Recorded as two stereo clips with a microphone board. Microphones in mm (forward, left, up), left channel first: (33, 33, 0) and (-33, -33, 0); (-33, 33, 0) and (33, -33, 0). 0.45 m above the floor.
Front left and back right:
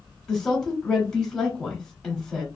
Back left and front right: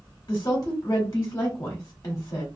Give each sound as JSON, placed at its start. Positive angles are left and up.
{"t": 0.3, "sound": "a woman speaking", "azimuth_deg": 125, "distance_m": 1.1}